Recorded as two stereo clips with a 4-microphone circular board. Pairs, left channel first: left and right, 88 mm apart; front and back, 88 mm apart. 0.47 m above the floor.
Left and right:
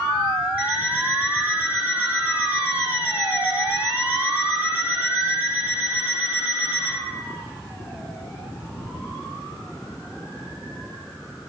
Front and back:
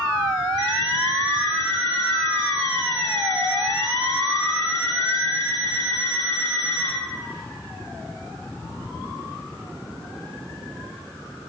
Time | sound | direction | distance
0.6 | an alarm clock | 160° right | 1.1 m